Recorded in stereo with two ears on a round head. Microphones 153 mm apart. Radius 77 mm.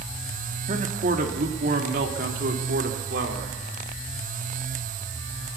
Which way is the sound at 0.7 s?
45° right (ahead or behind).